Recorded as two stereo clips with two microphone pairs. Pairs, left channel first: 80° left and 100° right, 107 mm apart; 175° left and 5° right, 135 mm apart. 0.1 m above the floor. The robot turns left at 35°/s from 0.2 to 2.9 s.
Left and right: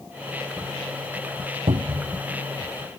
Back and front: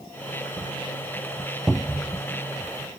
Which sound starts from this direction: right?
A cupboard door, at 1.7 s.